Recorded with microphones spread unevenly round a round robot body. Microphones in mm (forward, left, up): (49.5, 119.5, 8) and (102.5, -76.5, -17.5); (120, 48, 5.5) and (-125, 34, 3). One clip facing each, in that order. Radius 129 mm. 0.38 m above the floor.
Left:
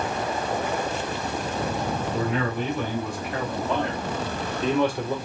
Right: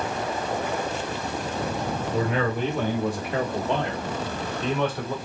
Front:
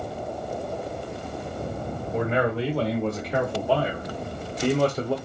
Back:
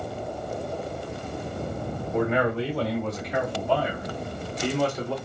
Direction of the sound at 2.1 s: 65° right.